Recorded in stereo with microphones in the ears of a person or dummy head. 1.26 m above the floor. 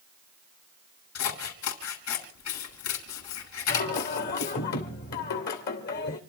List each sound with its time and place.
1.1 s scissors: 80° left, 6 m
3.7 s singing: 55° left (ahead or behind), 2.5 m